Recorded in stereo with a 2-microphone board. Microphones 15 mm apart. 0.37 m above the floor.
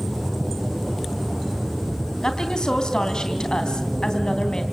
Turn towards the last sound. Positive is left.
turn(degrees=60)  # may be behind; listen again after turning